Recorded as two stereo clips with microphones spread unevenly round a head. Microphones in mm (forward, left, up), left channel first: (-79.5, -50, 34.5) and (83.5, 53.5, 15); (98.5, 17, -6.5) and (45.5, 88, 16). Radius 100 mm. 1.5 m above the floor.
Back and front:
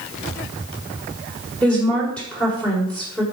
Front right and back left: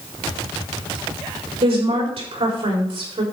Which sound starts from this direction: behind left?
A woman speaking, at 1.6 s.